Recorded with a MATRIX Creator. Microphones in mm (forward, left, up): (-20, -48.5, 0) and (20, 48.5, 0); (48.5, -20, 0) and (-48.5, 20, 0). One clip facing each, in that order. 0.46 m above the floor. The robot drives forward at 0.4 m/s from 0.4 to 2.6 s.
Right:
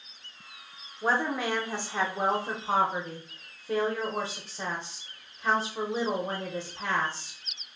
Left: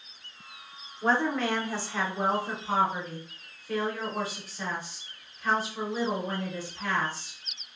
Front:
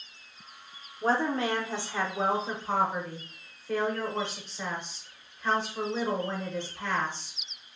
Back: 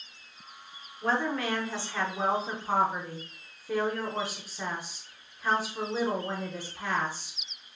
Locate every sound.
1.0 s a woman speaking: 35° right, 0.8 m; by 7.4 s 130° right, 0.7 m